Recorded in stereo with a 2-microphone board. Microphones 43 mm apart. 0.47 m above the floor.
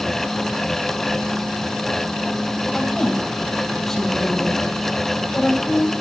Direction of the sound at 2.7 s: 10° left (ahead or behind).